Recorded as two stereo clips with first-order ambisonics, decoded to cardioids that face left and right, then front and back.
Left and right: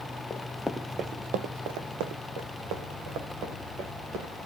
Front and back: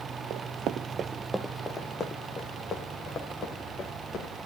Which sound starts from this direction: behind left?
Running footsteps, at 0.3 s.